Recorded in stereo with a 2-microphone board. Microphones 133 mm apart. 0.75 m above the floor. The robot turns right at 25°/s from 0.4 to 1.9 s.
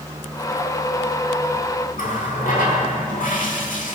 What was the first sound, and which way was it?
A running tap, 80° left.